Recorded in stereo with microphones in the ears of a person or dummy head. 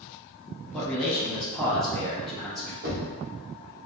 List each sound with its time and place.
0.7 s a man speaking: 5° left (ahead or behind), 0.9 m
2.8 s knocking: 60° right (ahead or behind), 1.2 m